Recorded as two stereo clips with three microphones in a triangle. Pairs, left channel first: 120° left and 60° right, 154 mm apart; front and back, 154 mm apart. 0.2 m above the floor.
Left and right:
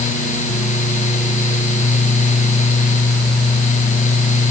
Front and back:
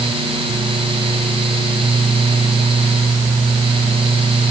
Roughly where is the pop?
No pop in this recording.